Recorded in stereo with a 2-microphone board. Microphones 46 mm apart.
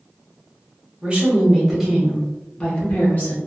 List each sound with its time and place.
1.0 s a woman speaking: 25° right (ahead or behind), 1.2 m; by 3.4 s 40° left (ahead or behind), 1.1 m